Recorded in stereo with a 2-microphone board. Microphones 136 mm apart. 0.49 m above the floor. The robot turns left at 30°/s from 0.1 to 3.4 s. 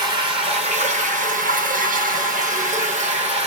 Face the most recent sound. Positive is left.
turn(degrees=-135)